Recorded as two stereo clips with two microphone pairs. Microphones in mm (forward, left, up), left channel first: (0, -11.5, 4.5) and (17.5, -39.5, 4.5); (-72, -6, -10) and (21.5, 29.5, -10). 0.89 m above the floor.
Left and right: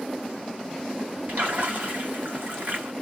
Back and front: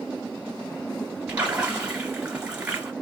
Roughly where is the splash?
Ahead right.